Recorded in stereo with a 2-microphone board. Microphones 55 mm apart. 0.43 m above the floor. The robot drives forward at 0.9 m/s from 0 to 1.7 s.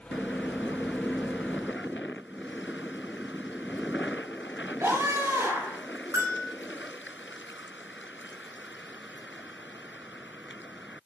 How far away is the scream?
About 7 m.